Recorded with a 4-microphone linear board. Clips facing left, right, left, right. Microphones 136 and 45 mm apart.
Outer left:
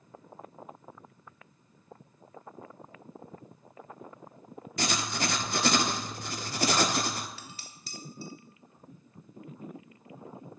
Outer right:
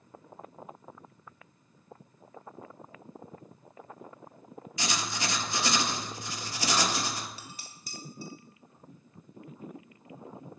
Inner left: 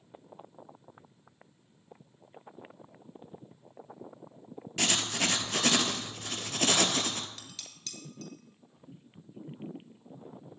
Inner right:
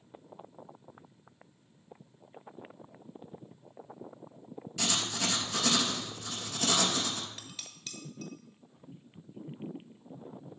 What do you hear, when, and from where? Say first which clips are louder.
4.8 s writing: outer left 3 dB, inner left 3 dB; 55° left (ahead or behind), 0.6 m
7.4 s dishes clattering: even, inner right 1 dB; 15° right (ahead or behind), 1.2 m